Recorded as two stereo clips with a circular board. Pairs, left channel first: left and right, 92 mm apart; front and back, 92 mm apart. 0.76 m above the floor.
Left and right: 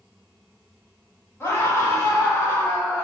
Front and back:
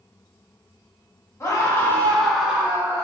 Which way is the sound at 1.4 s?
40° left.